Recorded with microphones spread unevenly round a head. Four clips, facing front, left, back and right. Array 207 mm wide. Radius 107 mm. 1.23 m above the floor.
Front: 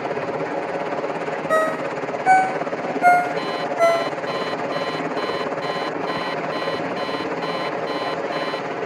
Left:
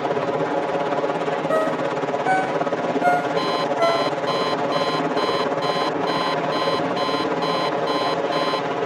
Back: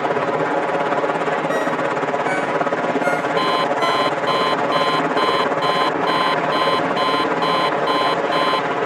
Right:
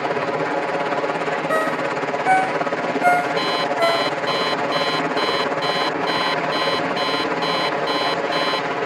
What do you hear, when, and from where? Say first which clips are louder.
0.0 s a helicopter: even, back 6 dB; 175° right
1.5 s a ringtone: left 1 dB, back 1 dB; 50° right
3.4 s an alarm clock: even, back 3 dB; 160° right